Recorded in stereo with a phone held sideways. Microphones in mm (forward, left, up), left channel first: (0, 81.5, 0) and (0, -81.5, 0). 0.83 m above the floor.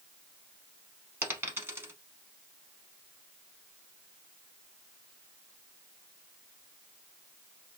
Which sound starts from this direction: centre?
A dropped coin, at 1.2 s.